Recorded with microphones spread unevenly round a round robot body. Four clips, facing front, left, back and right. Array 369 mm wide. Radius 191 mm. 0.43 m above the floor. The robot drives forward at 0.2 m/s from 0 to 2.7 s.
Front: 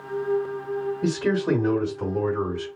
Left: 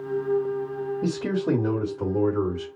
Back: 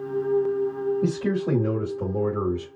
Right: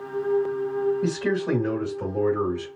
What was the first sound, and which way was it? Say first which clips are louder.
A man speaking: right 1 dB, front 2 dB; 130° left.